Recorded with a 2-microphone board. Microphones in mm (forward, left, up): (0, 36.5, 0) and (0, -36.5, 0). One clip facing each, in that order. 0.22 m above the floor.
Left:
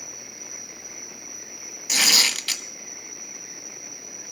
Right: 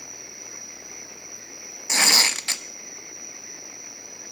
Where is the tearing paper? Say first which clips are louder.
Right 2 dB; 25° right (ahead or behind), 1.3 m.